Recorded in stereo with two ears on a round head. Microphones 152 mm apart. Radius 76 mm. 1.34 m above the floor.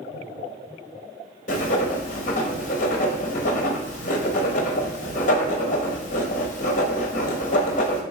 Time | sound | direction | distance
1.5 | writing | 45° left (ahead or behind) | 0.8 m